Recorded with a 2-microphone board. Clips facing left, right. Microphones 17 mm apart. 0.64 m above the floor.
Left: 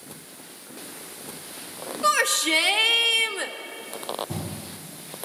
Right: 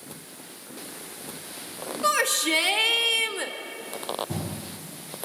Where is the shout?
10° left (ahead or behind), 1.8 m.